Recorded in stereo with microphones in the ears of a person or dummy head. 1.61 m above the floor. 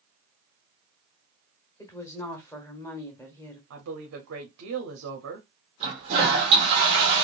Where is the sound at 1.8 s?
15° left (ahead or behind), 1.2 m.